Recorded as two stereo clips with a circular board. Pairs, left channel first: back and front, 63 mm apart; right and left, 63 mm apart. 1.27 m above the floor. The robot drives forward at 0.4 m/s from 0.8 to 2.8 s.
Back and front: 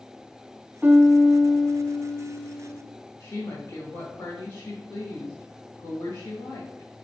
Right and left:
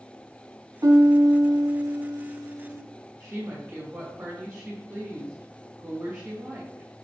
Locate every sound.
0.8 s a piano: 65° left, 0.6 m; by 2.8 s 135° left, 0.8 m
3.2 s a woman speaking: 155° left, 2 m